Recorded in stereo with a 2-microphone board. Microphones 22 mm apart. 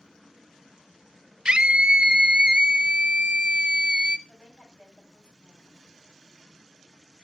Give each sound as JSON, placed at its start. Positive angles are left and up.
{"t": 1.4, "sound": "a scream", "side_deg": -45, "distance_m": 0.5}
{"t": 4.3, "sound": "a woman speaking", "side_deg": 50, "distance_m": 5.0}